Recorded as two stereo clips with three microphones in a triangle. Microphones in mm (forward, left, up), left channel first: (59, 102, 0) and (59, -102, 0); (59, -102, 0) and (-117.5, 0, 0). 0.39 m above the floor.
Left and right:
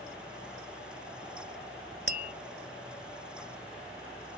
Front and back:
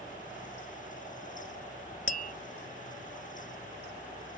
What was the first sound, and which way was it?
Tapping, 65° right.